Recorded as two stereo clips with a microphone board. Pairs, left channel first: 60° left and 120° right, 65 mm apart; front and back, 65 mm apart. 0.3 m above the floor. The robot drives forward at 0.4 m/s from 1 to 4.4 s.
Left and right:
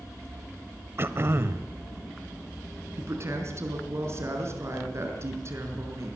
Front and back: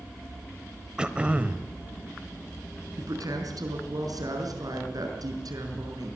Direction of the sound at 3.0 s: 165° right.